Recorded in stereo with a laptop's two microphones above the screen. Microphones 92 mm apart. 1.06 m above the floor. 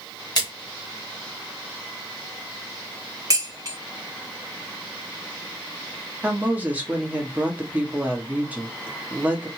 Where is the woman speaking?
15° right (ahead or behind), 1.4 m.